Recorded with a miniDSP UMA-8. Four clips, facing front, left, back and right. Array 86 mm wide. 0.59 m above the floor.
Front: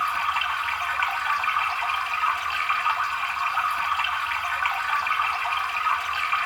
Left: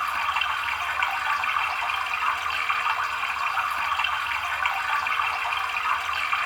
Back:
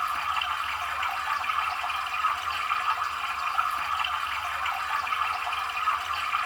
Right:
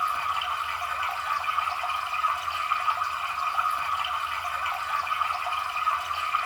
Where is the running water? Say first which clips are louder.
Left 1 dB, front 4 dB; 45° left, 1.2 m.